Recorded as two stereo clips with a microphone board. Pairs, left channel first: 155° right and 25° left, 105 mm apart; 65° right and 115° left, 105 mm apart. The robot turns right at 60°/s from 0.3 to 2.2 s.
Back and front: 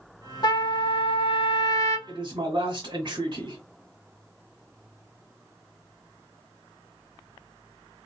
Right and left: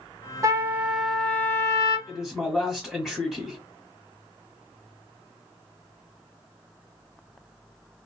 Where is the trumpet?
165° left, 0.7 m; by 2.0 s 100° right, 0.7 m.